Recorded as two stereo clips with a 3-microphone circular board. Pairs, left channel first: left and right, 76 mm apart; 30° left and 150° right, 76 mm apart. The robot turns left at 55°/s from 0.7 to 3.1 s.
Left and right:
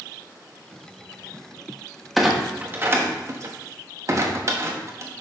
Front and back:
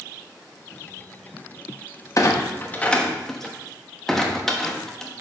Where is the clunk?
Straight ahead, 1.1 m; by 5.1 s 50° right, 1.1 m.